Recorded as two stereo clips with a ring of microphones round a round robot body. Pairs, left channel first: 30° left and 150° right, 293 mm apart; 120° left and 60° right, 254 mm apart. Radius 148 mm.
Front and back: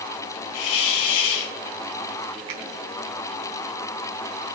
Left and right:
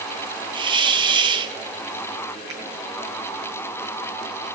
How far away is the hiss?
About 1.9 m.